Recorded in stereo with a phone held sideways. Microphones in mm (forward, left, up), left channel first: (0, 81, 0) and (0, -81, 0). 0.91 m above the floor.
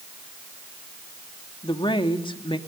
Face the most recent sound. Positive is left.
turn(degrees=30)  # may be behind; listen again after turning